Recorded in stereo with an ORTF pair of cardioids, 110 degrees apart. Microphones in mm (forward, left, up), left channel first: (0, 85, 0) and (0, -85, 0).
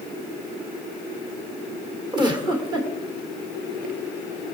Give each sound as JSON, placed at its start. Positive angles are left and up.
{"t": 2.1, "sound": "a giggle", "azimuth_deg": -25, "distance_m": 1.9}